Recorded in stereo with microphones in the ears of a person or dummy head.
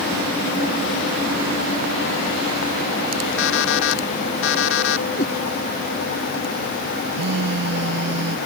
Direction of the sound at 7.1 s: 70° right (ahead or behind).